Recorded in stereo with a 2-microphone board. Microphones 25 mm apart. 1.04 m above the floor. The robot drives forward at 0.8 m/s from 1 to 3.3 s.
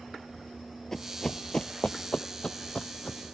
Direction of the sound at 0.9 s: 20° left (ahead or behind).